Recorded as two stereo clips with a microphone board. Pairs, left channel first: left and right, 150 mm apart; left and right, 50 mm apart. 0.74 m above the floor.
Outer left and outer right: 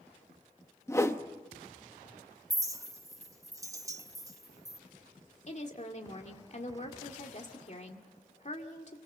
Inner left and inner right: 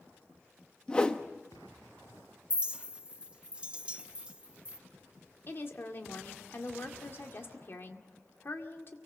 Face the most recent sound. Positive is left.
turn(degrees=50)  # may be behind; listen again after turning